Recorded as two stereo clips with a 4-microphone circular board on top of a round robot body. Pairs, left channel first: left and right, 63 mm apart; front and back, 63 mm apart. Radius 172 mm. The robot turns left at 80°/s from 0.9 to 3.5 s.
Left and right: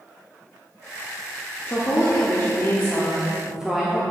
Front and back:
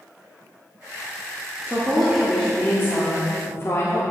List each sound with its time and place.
1.7 s a woman speaking: 130° left, 1.7 m; by 4.0 s 15° right, 1.7 m